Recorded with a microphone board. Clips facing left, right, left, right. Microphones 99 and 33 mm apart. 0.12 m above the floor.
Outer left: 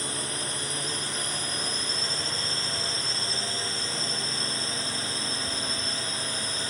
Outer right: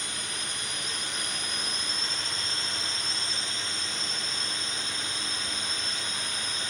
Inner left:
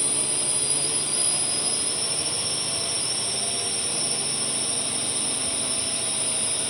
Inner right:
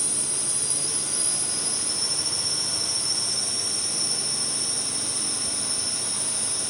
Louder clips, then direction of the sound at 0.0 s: Outer left 4 dB, inner left 3 dB; 35° left (ahead or behind).